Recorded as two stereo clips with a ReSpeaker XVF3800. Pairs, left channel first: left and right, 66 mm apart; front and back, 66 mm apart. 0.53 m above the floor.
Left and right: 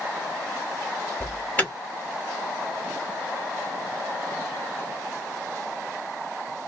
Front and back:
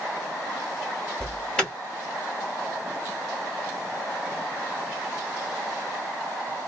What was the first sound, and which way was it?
An alarm, 60° left.